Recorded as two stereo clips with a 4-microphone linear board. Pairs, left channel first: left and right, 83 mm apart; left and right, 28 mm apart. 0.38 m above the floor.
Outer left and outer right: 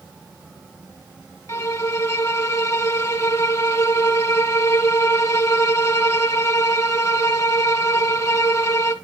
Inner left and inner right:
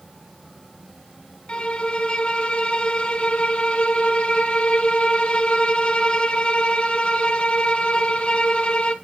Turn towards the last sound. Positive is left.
turn(degrees=35)  # may be behind; listen again after turning